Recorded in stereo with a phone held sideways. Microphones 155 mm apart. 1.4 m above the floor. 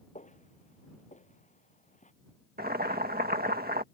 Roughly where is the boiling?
Right.